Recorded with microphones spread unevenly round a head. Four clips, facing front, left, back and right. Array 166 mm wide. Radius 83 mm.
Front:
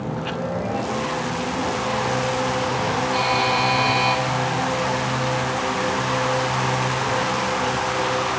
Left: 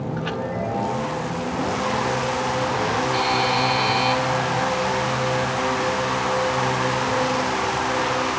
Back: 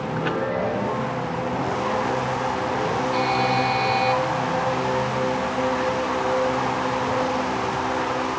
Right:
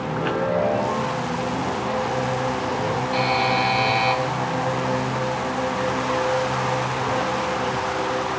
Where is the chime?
105° right, 0.8 m.